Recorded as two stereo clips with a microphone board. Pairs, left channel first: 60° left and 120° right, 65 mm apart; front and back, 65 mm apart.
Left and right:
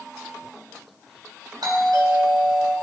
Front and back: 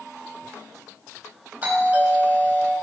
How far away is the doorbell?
About 5.5 m.